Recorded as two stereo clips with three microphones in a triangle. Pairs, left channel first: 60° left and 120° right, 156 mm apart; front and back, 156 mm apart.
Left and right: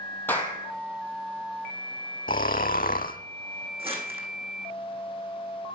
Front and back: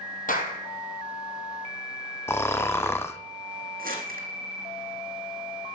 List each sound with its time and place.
0.3 s a clap: 15° right, 3.5 m
2.3 s snoring: 75° left, 1.1 m
3.8 s crumpling: 170° right, 4.5 m